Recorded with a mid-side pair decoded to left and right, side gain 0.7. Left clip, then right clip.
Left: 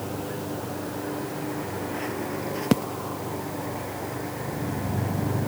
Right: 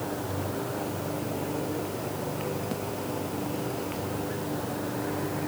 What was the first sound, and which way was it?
Only background noise.